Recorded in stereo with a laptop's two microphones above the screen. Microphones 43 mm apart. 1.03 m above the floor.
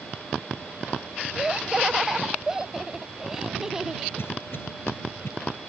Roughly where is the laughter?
Centre.